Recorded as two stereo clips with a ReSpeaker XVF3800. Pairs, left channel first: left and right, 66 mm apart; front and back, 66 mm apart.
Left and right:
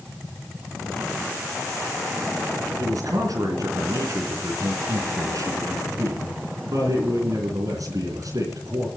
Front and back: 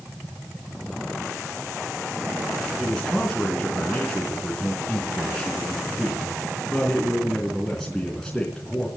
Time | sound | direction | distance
2.8 | a man speaking | 80° right | 3.5 m